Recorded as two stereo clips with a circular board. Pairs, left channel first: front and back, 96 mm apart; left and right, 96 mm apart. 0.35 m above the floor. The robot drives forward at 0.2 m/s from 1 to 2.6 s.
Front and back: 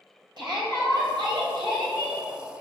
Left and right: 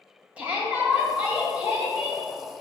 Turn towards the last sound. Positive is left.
turn(degrees=-165)